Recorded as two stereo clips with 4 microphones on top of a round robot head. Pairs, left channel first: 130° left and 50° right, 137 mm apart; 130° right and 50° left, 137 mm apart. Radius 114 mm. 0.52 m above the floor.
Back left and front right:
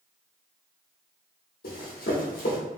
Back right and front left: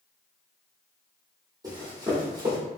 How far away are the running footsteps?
About 1.2 m.